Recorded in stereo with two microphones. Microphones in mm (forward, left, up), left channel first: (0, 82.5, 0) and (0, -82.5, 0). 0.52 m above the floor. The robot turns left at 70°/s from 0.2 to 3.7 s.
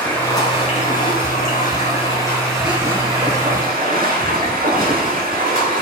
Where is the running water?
170° left, 2.5 m; by 5.8 s 75° right, 2.5 m.